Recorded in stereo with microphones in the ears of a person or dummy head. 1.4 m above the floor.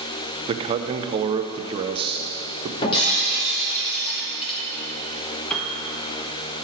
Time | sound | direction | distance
0.5 | a man speaking | 30° right (ahead or behind) | 0.5 m
2.8 | breaking glass | 30° left (ahead or behind) | 1.6 m
5.5 | a piano | 5° left (ahead or behind) | 1.0 m